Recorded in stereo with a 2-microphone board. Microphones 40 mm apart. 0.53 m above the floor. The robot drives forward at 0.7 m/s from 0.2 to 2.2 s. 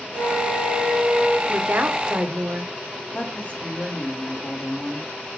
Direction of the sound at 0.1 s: 70° left (ahead or behind).